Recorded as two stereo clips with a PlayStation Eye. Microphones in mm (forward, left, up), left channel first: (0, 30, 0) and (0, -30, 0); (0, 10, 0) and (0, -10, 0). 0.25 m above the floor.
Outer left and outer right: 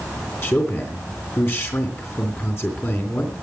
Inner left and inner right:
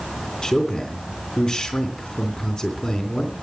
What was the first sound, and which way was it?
A man speaking, 40° left (ahead or behind).